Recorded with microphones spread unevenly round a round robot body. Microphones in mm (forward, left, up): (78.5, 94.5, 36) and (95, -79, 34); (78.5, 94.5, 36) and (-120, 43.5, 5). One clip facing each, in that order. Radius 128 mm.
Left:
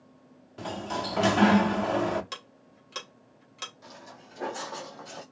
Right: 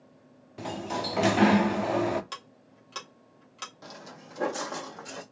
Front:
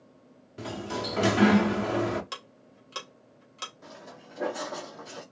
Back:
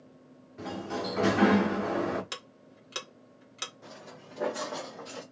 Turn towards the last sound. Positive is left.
turn(degrees=-80)